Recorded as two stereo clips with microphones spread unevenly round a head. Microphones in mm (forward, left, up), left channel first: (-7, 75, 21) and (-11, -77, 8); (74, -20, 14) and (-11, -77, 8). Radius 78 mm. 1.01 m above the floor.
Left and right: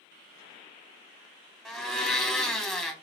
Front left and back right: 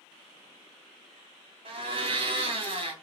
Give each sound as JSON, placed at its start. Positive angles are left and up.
{"t": 1.6, "sound": "a blender", "azimuth_deg": 180, "distance_m": 1.0}